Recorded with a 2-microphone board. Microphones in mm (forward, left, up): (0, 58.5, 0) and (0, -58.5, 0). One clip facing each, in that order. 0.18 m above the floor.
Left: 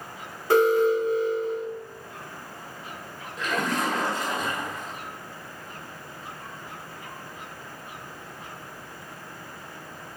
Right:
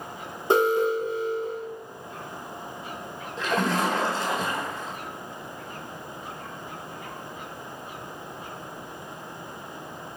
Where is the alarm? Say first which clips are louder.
Left 2 dB; 25° right (ahead or behind), 1.4 m.